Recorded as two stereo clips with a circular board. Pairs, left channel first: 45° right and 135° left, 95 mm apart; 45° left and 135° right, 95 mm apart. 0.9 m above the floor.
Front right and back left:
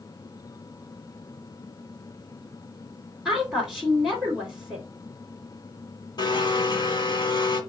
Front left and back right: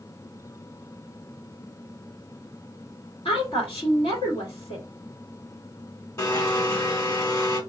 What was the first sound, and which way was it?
A woman speaking, 50° left.